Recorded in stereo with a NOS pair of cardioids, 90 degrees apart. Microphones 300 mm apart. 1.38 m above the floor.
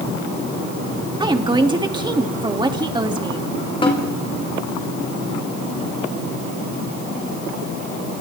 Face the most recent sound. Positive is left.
turn(degrees=20)